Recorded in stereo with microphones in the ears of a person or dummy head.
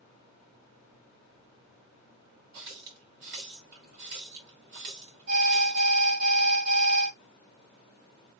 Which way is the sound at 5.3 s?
60° right (ahead or behind).